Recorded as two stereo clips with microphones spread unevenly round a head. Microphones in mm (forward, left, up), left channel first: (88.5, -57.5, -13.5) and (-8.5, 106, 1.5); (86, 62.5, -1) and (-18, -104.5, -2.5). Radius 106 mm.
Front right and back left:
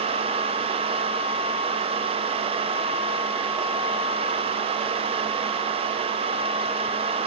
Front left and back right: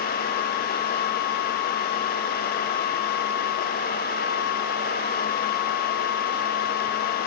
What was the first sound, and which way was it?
Only background noise.